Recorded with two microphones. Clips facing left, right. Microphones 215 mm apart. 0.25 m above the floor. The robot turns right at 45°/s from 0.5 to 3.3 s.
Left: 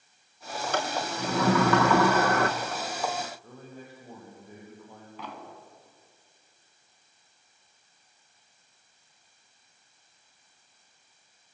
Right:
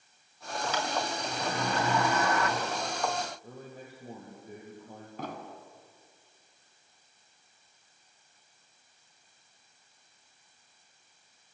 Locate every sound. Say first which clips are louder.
0.7 s a sliding door: left 3 dB; 50° left, 3 m; by 2.5 s 130° left, 3 m
3.4 s a man speaking: even; 15° right (ahead or behind), 8 m
5.2 s an explosion: right 3 dB; 45° right (ahead or behind), 2.5 m